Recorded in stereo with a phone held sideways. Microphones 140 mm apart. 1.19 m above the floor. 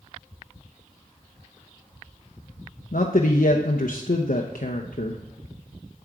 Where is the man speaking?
85° left, 0.7 m.